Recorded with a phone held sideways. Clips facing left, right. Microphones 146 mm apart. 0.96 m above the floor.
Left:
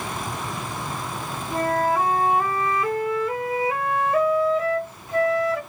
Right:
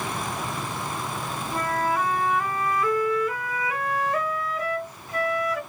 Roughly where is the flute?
Left.